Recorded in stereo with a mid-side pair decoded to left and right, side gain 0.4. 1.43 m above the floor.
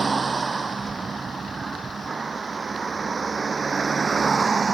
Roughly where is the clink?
I don't hear a clink.